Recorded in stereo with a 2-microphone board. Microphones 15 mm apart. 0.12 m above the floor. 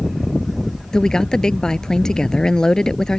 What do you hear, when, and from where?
0.9 s a woman speaking: 45° left (ahead or behind)